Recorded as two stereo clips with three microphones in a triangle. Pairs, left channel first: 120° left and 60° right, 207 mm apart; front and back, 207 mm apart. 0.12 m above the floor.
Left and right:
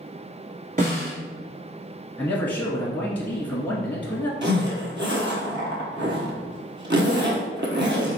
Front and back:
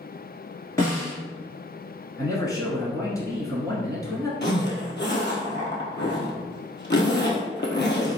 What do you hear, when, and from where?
0.8 s a snare drum: 65° right, 2.0 m
2.2 s a man speaking: 50° left, 1.3 m
4.4 s a zipper: 30° right, 0.9 m